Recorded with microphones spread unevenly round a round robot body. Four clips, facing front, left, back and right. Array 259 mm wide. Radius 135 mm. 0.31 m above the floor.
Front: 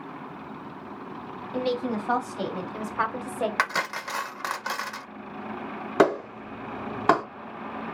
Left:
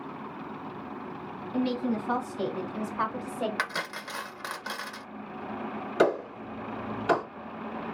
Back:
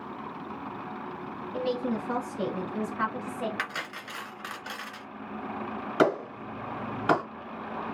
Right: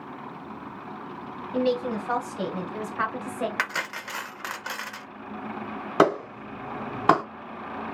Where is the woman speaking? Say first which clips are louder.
Right 3 dB, front 2 dB; 30° right, 3 m; by 3.5 s 10° right, 1.8 m.